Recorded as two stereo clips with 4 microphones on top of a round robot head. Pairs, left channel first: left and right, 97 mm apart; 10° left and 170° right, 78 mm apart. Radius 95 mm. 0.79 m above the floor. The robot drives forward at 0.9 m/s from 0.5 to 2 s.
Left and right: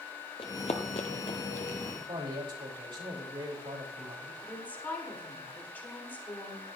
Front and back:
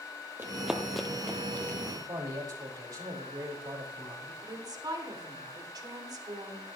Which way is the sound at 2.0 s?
130° right.